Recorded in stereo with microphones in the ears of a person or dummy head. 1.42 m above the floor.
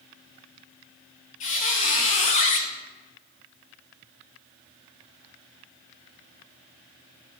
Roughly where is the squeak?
Left.